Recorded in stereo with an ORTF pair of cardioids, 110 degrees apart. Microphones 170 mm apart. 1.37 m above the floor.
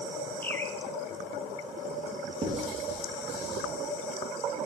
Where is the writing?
35° right, 1.8 m.